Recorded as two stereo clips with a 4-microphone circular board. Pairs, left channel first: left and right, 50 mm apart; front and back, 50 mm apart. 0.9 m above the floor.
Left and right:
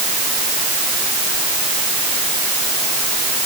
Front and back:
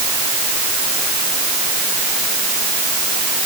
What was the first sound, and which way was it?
Only background noise.